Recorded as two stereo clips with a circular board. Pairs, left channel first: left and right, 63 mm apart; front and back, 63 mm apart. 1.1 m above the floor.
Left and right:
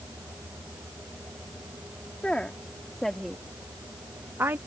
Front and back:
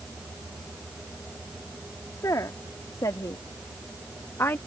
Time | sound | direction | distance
2.2 | a woman speaking | 20° left | ?